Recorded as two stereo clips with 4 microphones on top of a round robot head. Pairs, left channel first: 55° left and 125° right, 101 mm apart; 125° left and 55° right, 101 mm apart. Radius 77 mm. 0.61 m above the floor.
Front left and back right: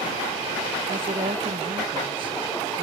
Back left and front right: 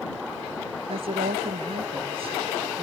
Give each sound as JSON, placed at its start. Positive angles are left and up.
{"t": 0.9, "sound": "a woman speaking", "azimuth_deg": -85}